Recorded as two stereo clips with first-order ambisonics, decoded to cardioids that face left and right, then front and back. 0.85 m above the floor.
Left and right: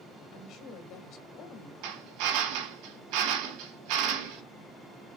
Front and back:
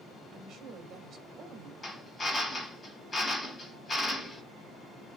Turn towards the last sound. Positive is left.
turn(degrees=-75)